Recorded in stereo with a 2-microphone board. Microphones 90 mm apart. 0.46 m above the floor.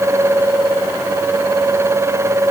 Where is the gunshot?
I don't hear a gunshot.